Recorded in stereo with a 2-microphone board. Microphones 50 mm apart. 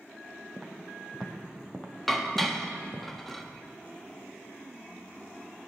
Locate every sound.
0.6 s footsteps: centre (ahead or behind), 2.5 m; by 3.0 s 35° left (ahead or behind), 2.5 m
2.1 s dishes clattering: 5° left (ahead or behind), 1.1 m